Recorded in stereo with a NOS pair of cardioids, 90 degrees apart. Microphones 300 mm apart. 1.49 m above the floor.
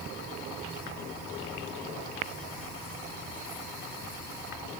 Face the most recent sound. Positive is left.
No sound to turn to.